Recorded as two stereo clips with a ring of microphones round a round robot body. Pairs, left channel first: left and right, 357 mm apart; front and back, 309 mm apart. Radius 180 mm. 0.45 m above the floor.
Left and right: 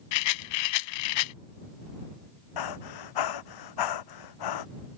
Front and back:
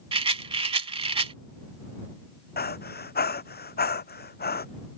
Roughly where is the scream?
I don't hear a scream.